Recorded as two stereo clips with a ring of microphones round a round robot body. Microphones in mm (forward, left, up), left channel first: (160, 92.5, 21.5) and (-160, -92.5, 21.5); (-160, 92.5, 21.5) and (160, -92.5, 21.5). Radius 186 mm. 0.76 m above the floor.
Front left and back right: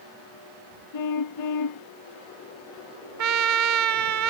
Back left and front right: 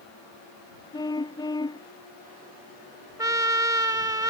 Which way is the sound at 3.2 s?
110° right.